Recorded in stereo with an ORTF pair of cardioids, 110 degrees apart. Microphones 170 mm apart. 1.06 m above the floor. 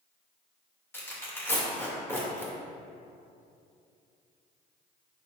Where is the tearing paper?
15° left, 2.5 m.